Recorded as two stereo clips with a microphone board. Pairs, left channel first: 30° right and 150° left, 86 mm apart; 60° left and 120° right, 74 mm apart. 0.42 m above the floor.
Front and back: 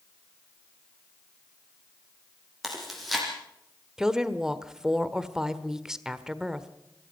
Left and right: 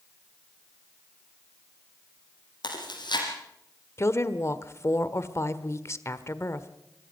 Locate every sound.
2.6 s chewing: 60° left, 5.5 m
4.0 s a woman speaking: 70° left, 1.3 m